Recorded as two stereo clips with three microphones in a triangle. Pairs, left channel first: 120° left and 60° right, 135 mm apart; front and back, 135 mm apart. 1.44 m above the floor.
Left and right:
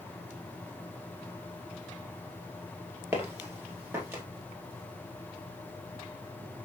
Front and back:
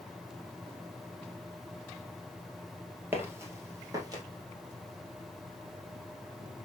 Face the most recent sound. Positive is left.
turn(degrees=-130)